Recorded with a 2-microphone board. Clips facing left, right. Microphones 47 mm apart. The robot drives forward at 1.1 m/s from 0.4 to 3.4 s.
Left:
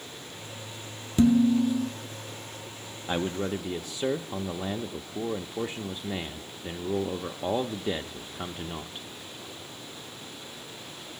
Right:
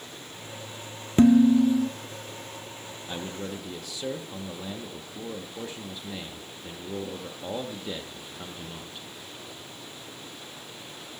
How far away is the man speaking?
About 0.5 m.